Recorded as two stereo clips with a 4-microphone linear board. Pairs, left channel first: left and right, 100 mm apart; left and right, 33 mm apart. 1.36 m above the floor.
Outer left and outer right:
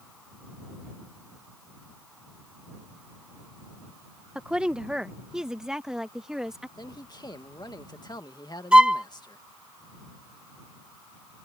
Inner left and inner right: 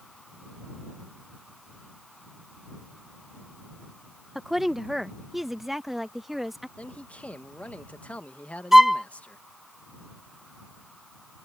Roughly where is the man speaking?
Left.